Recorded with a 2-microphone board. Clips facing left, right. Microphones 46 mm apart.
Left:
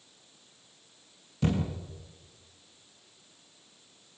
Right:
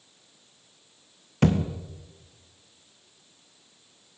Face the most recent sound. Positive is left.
turn(degrees=-70)  # may be behind; listen again after turning